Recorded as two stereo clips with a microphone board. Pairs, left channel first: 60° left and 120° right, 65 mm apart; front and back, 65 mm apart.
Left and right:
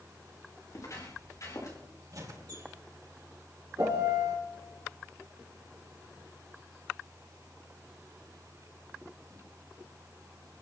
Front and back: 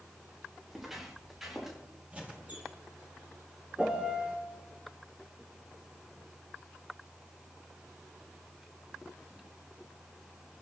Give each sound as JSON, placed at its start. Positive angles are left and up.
{"t": 0.7, "sound": "footsteps", "azimuth_deg": 95, "distance_m": 6.0}
{"t": 2.1, "sound": "a squeak", "azimuth_deg": -110, "distance_m": 4.5}
{"t": 3.8, "sound": "a piano", "azimuth_deg": -110, "distance_m": 2.5}